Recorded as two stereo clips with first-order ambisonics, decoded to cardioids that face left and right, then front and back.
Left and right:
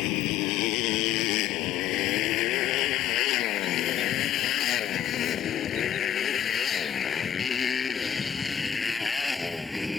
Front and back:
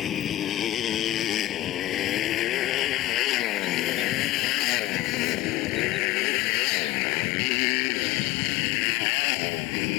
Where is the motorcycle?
60° left; by 10.0 s 5° left.